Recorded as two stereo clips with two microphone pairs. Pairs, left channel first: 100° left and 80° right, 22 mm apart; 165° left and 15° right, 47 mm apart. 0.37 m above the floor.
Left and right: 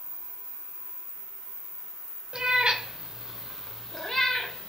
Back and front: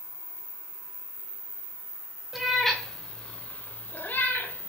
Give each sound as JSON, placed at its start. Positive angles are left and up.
{"t": 2.3, "sound": "a cat meowing", "azimuth_deg": -100, "distance_m": 0.9}